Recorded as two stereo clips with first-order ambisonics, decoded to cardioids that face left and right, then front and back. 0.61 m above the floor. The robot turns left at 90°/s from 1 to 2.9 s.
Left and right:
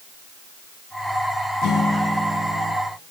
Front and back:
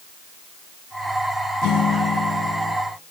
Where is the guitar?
45° left, 5 m; by 2.8 s 55° right, 5 m.